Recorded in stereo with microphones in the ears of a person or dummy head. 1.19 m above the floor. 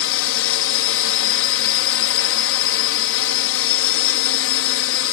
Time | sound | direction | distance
0.0 | a drone | 65° left (ahead or behind) | ?